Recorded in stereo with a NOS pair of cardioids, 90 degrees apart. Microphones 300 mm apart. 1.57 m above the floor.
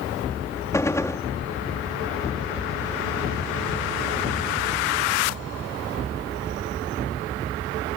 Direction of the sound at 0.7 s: 10° left.